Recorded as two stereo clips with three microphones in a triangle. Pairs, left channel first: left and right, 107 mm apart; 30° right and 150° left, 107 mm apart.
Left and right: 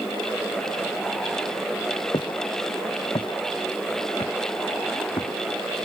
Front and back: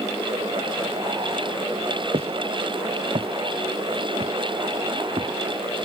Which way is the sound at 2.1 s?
130° left.